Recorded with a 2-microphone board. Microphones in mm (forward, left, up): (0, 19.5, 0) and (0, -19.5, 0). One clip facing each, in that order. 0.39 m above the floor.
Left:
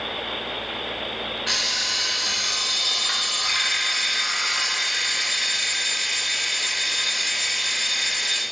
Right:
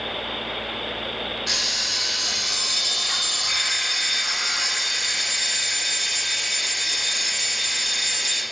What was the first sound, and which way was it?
An alarm clock, 35° left (ahead or behind).